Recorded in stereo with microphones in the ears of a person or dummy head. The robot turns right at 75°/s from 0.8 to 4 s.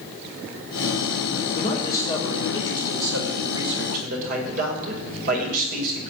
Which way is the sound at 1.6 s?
135° left.